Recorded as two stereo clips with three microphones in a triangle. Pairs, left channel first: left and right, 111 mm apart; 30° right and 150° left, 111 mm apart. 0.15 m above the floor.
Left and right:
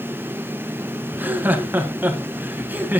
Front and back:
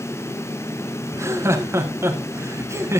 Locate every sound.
1.1 s laughter: 155° right, 1.4 m